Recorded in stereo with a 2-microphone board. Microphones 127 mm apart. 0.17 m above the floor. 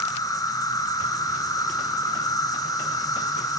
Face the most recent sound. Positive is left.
turn(degrees=30)  # may be behind; listen again after turning